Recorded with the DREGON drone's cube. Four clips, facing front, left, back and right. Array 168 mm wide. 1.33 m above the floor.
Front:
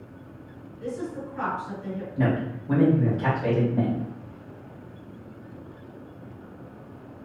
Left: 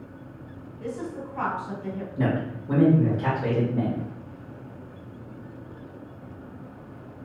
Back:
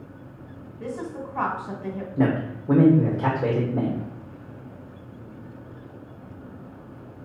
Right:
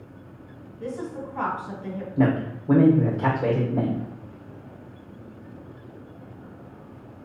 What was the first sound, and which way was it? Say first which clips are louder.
A woman speaking: right 1 dB, even; 165° right.